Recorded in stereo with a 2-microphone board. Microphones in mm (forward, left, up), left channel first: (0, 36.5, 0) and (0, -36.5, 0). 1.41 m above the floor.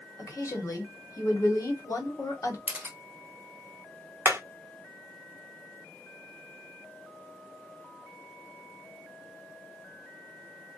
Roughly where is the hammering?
Right.